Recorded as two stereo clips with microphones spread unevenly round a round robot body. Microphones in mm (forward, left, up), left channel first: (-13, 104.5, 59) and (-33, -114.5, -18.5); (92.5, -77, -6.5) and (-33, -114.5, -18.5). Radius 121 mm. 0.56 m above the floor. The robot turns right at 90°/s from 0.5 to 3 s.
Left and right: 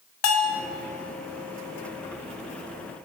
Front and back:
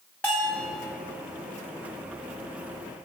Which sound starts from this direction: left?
A bell, at 0.2 s.